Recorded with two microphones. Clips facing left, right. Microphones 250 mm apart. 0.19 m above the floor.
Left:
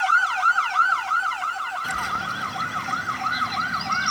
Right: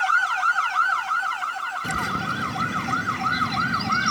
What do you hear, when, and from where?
1.8 s a bird: 35° right (ahead or behind), 0.6 m